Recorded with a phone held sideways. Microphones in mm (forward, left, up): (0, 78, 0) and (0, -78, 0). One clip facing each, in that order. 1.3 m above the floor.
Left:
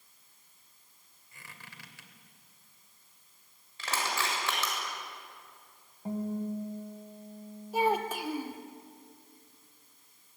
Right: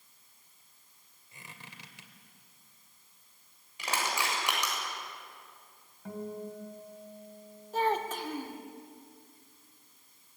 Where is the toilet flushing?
I don't hear a toilet flushing.